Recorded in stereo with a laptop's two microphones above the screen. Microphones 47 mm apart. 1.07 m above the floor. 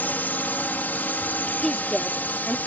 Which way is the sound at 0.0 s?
45° left (ahead or behind).